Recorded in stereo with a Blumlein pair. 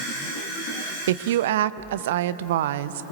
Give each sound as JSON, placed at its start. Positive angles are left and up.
{"t": 1.1, "sound": "a woman speaking", "azimuth_deg": -55, "distance_m": 0.7}